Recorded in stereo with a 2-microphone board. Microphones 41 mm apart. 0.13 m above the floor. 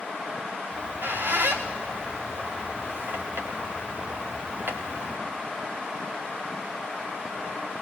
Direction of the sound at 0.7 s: 65° right (ahead or behind).